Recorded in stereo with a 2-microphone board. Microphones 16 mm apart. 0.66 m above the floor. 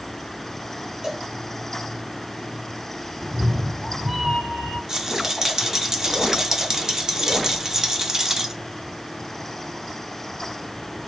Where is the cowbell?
35° right (ahead or behind), 2 m.